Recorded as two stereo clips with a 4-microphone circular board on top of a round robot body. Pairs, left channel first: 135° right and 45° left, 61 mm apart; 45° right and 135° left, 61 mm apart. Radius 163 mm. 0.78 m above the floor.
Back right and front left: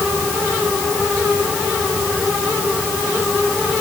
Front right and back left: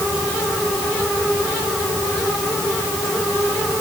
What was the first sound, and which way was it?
Only background noise.